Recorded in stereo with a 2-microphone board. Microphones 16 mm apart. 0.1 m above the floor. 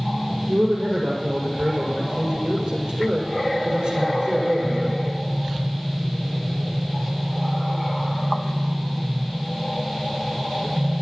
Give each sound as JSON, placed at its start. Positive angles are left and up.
{"t": 0.5, "sound": "a man speaking", "side_deg": -70, "distance_m": 6.0}